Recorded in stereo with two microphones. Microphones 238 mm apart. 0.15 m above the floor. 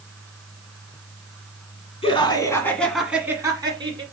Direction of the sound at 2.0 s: 25° left (ahead or behind).